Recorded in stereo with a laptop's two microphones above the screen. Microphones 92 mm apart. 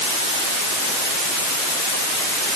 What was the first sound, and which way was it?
Only background noise.